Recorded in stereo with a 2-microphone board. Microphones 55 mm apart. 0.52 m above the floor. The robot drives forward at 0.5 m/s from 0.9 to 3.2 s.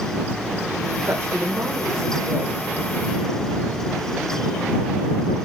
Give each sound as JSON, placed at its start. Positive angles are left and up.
{"t": 1.1, "sound": "a woman speaking", "side_deg": -55, "distance_m": 1.5}